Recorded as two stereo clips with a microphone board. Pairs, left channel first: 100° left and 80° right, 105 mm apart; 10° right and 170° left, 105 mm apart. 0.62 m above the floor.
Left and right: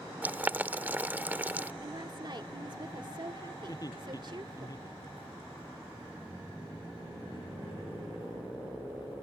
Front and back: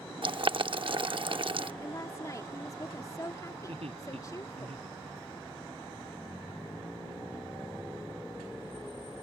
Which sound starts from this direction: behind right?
Boiling, at 0.2 s.